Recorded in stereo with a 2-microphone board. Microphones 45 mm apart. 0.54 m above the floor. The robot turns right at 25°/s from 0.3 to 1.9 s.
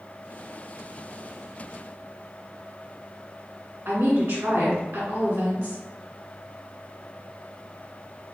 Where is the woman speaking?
40° right (ahead or behind), 1.4 m.